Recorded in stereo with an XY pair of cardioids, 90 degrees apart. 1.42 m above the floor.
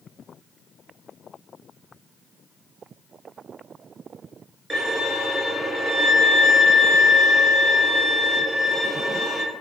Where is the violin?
40° right, 0.9 m.